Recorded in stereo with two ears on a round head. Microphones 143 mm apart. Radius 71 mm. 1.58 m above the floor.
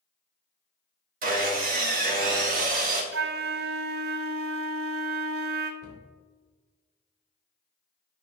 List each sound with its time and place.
1.2 s sawing: 55° right (ahead or behind), 1.4 m
3.1 s a flute: 65° right (ahead or behind), 0.6 m
5.8 s a cupboard door: 65° left (ahead or behind), 2.5 m